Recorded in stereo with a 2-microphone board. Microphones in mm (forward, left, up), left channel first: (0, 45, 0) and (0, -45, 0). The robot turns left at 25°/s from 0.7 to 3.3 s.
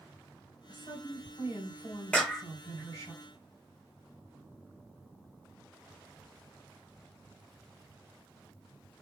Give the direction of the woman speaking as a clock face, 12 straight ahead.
9 o'clock.